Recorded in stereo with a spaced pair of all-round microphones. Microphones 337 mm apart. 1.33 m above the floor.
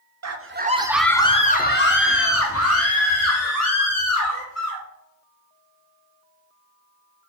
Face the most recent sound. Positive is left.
turn(degrees=55)  # may be behind; listen again after turning